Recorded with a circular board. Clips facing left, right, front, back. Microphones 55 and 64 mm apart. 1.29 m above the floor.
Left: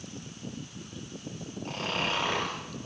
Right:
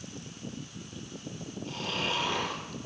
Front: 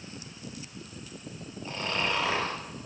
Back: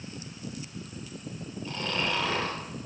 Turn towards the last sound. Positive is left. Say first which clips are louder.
# left 2 dB, front 1 dB
turn(degrees=70)